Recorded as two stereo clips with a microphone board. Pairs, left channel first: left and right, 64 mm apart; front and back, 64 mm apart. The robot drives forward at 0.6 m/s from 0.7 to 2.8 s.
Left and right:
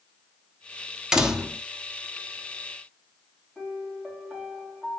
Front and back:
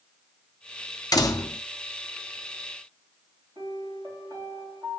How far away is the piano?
About 3.5 m.